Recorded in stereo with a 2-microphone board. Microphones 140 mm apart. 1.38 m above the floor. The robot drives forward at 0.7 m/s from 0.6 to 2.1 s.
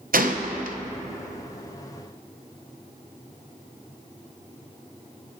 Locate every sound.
0.1 s a gunshot: 85° right, 0.8 m